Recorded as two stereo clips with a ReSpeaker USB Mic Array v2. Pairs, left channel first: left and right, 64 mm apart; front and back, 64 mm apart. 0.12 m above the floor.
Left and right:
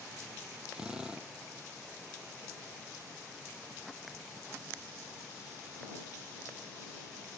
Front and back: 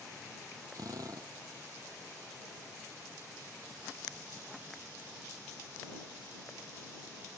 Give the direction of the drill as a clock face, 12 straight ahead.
5 o'clock.